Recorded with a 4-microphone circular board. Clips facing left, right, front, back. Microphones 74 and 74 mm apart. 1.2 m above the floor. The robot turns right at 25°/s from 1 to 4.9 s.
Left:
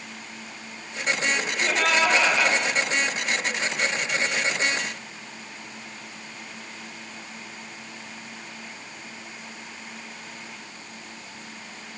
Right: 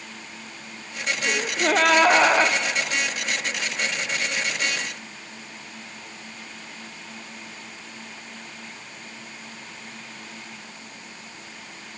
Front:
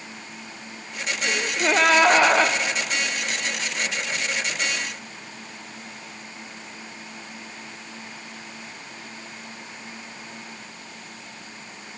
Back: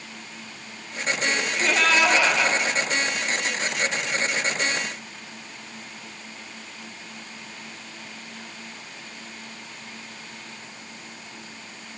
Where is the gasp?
70° right, 0.5 m; by 2.6 s 40° right, 0.5 m.